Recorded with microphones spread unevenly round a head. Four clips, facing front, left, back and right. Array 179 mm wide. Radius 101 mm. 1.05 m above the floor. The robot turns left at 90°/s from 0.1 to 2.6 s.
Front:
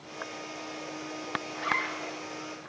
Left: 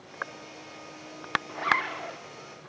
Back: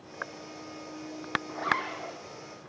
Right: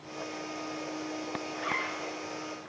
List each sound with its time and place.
1.5 s a zipper: 145° left, 0.5 m; by 2.2 s 85° left, 0.5 m